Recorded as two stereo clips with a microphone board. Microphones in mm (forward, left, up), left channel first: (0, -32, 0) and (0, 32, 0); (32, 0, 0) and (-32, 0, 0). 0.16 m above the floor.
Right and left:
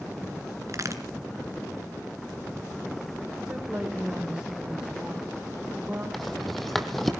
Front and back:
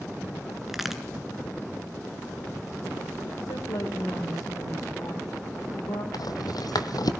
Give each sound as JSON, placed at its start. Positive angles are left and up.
{"t": 0.7, "sound": "a crack", "azimuth_deg": 95, "distance_m": 2.0}
{"t": 3.5, "sound": "a woman speaking", "azimuth_deg": 10, "distance_m": 7.5}
{"t": 6.1, "sound": "a rattle", "azimuth_deg": -5, "distance_m": 1.3}